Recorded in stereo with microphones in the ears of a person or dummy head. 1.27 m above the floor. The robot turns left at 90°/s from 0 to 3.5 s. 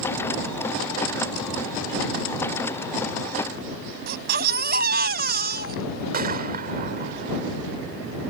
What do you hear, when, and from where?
4.1 s a baby crying: 60° right (ahead or behind)
6.1 s a gunshot: 45° right (ahead or behind)